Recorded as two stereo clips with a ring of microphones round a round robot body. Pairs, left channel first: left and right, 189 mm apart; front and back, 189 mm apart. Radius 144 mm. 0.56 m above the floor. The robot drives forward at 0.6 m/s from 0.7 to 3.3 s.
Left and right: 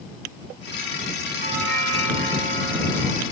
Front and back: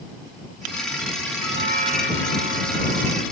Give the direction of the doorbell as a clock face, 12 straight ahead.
1 o'clock.